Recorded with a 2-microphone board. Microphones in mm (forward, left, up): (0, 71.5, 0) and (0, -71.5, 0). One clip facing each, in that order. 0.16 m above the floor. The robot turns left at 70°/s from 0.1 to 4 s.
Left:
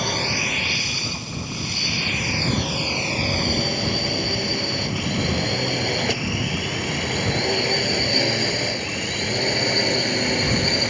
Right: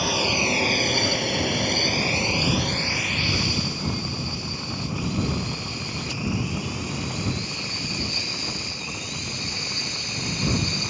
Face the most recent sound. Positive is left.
turn(degrees=60)  # may be behind; listen again after turning